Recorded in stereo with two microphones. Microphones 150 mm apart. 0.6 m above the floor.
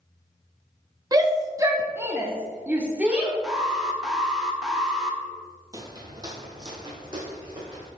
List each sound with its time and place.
1.1 s a shout: 25° right (ahead or behind), 0.6 m; by 3.3 s 10° right (ahead or behind), 1.3 m
3.4 s an alarm: 5° right (ahead or behind), 1.0 m
5.7 s footsteps: 25° right (ahead or behind), 0.9 m; by 7.9 s 30° right (ahead or behind), 2.5 m